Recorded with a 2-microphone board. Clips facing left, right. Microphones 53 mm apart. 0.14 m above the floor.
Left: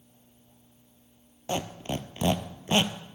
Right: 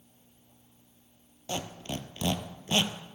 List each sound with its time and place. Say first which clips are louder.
1.5 s a squeak: left 4 dB; 25° left (ahead or behind), 0.6 m